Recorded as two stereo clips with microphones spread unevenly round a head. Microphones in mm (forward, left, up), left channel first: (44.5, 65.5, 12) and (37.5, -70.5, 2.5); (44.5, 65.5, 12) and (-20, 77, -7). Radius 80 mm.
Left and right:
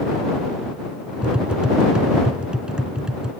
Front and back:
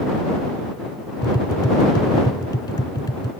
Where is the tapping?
10° right.